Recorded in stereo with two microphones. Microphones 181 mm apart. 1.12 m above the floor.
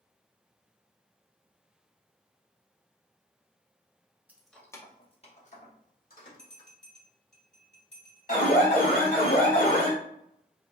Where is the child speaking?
I don't hear a child speaking.